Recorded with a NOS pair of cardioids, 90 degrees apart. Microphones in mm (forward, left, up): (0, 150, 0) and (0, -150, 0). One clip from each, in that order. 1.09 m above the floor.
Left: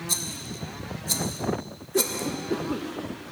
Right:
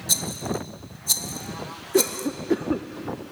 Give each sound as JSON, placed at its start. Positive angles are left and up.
{"t": 0.1, "sound": "a rattle", "azimuth_deg": -35, "distance_m": 1.0}
{"t": 1.9, "sound": "a cough", "azimuth_deg": -35, "distance_m": 0.5}